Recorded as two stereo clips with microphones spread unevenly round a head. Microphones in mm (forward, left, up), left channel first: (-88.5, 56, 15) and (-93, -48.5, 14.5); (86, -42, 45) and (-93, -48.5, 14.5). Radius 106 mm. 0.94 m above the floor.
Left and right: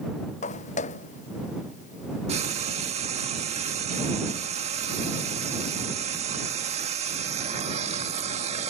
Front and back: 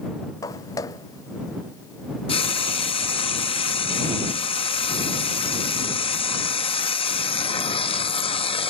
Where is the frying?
60° right.